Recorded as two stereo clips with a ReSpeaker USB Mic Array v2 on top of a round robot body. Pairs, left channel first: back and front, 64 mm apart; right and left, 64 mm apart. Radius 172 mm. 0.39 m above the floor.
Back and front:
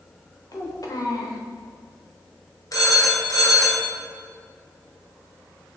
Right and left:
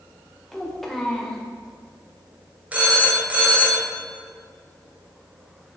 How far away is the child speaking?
About 1.9 m.